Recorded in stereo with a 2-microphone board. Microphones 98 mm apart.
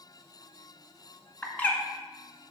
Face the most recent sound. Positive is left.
turn(degrees=15)  # may be behind; listen again after turning